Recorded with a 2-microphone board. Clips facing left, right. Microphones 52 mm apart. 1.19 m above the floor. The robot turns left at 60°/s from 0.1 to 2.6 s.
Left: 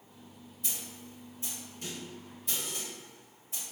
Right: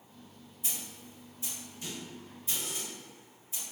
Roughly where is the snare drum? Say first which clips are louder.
Even; centre.